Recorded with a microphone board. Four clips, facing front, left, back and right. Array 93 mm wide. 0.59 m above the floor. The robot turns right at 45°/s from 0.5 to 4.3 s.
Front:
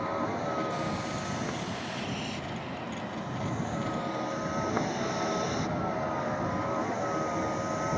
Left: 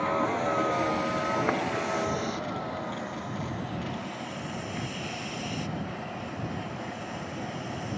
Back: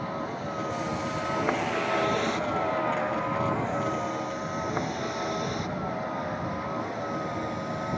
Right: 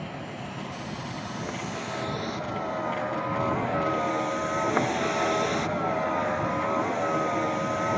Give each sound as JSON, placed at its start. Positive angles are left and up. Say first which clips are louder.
{"t": 0.0, "sound": "a vehicle", "louder": "left 10 dB, front 2 dB", "azimuth_deg": 85}